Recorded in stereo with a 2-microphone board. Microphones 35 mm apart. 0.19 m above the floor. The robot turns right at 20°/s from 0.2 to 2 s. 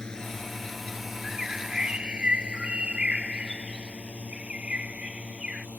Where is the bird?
10° right (ahead or behind); by 5.7 s 25° right (ahead or behind).